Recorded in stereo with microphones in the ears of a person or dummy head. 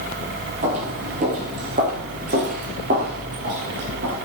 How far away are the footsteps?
About 5.5 m.